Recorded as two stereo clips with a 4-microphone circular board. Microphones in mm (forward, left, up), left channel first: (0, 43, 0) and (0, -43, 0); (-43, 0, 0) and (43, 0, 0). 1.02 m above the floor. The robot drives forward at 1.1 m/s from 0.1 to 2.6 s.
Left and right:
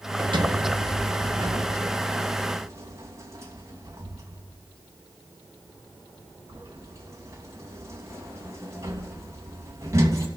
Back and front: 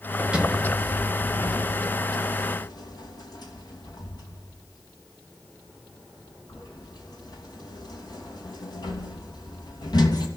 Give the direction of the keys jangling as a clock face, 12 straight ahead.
No keys jangling in this recording.